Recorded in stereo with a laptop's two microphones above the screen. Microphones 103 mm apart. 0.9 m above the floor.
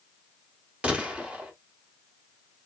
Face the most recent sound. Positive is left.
turn(degrees=-10)  # may be behind; listen again after turning